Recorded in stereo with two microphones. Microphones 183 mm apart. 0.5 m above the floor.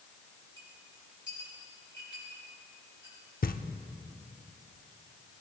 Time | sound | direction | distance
0.6 | a clink | 80° left | 7 m
3.4 | knocking | 50° left (ahead or behind) | 0.7 m